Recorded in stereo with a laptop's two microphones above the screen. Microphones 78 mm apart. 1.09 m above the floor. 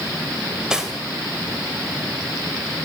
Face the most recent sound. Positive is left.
turn(degrees=-10)  # may be behind; listen again after turning